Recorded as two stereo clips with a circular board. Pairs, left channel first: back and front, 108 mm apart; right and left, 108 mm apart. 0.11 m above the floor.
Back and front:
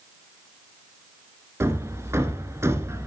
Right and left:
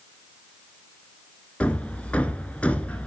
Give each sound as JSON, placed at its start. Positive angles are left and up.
{"t": 1.6, "sound": "hammering", "azimuth_deg": -25, "distance_m": 0.9}